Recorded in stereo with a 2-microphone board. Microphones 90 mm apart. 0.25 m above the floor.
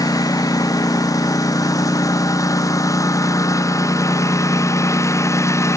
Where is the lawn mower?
45° left (ahead or behind); by 5.8 s 35° left (ahead or behind).